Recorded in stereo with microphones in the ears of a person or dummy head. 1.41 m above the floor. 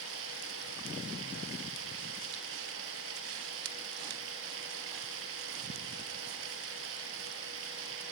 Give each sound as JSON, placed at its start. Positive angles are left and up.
{"t": 0.0, "sound": "running water", "side_deg": -70, "distance_m": 5.0}